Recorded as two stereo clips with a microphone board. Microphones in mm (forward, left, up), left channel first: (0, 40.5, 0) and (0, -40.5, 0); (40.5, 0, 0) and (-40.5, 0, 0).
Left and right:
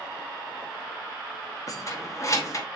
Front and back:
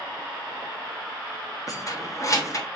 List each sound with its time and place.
1.7 s keys jangling: 45° left, 0.7 m